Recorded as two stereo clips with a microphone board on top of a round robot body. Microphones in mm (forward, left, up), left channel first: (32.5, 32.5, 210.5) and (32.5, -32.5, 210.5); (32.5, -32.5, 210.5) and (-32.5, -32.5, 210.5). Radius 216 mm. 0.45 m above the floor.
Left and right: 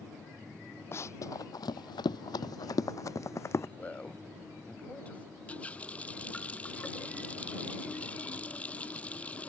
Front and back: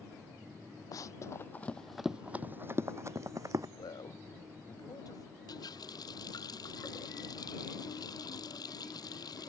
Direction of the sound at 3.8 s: 20° left.